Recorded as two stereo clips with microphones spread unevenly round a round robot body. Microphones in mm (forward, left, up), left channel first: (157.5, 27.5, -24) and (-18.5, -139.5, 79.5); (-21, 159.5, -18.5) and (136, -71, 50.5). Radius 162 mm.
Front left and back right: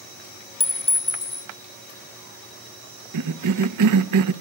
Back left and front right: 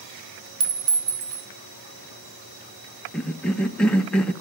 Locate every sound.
0.6 s a clink: 25° right, 1.3 m
3.1 s a cough: 160° right, 0.8 m